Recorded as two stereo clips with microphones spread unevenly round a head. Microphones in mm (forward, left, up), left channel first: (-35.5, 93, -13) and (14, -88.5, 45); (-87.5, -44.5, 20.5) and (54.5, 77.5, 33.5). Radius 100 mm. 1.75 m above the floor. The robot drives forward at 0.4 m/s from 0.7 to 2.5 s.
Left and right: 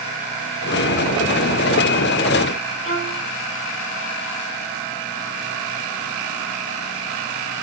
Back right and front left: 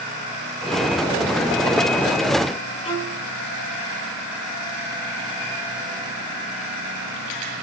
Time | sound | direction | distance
2.8 | a violin | 160° left | 5 m